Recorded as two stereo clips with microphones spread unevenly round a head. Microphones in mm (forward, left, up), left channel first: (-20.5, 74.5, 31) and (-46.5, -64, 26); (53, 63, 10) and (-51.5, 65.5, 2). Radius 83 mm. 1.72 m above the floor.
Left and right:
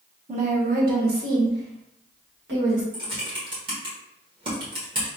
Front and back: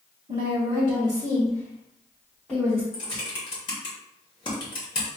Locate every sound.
0.3 s a woman speaking: 145° right, 1.2 m; by 2.8 s 80° right, 2 m
2.9 s typing on a keyboard: 40° right, 1.1 m